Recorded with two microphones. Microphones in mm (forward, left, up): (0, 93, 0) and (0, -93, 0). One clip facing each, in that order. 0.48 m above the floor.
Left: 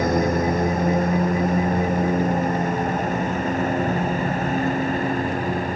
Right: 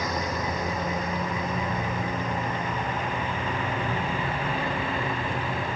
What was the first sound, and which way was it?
A lawn mower, 45° left (ahead or behind).